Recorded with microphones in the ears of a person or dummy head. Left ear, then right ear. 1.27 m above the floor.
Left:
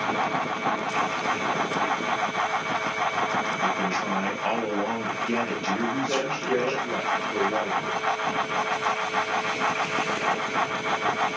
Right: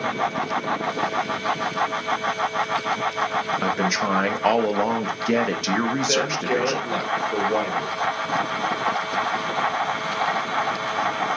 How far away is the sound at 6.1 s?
About 1.1 m.